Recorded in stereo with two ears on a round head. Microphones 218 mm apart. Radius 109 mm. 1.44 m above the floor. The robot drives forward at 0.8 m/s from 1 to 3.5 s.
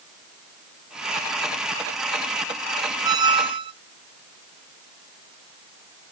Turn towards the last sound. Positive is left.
turn(degrees=-20)  # may be behind; listen again after turning